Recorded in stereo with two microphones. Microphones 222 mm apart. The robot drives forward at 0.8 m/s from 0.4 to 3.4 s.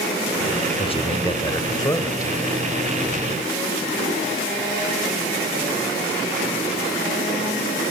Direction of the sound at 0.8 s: 25° left (ahead or behind).